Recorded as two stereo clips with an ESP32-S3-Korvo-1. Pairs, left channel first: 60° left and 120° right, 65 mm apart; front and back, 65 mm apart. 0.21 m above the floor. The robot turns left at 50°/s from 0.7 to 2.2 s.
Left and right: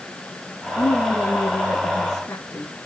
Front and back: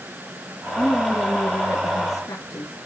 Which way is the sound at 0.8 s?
85° left.